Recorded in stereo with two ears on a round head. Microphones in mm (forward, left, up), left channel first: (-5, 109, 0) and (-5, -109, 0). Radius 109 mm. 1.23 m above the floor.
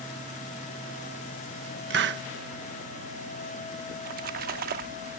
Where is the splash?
40° right (ahead or behind).